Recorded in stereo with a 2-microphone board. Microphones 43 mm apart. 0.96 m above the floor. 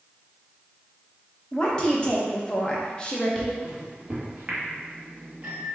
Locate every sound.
1.5 s a woman speaking: 20° left (ahead or behind), 1.2 m
3.6 s a microwave: 35° right (ahead or behind), 1.2 m